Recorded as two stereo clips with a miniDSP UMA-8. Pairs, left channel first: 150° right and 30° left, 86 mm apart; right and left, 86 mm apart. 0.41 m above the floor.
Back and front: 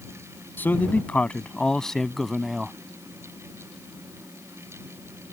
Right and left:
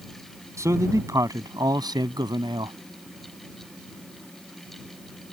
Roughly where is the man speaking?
Behind left.